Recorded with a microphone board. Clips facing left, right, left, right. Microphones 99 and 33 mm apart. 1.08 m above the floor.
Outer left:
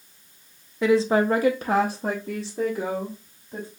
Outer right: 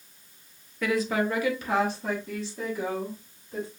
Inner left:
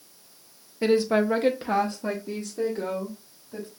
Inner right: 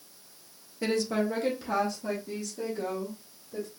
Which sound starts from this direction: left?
A woman speaking, at 0.8 s.